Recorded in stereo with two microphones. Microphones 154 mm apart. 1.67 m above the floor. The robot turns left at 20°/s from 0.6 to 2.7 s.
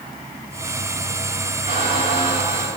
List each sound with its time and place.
1.7 s a squeak: 60° right (ahead or behind), 4 m; by 2.7 s 40° right (ahead or behind), 4 m